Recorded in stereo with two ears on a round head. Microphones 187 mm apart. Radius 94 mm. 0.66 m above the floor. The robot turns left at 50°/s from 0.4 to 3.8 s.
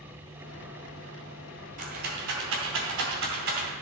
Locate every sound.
1.8 s a rattle: 40° right (ahead or behind), 3 m; by 3.7 s 45° right (ahead or behind), 3 m